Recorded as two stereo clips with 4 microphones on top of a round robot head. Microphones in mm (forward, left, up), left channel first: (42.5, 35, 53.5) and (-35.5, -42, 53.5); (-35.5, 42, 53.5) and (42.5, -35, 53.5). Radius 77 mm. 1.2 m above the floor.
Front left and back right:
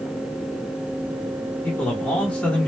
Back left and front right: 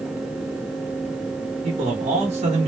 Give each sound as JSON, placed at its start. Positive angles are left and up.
{"t": 1.6, "sound": "a man speaking", "azimuth_deg": -30, "distance_m": 1.3}